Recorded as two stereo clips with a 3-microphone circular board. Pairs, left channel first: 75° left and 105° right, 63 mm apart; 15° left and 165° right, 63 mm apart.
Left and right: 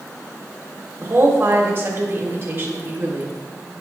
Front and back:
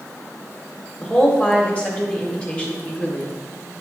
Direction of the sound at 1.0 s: 55° right.